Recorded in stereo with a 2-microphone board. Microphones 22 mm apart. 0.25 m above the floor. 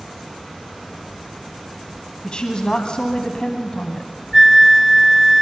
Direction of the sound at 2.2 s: 45° left (ahead or behind).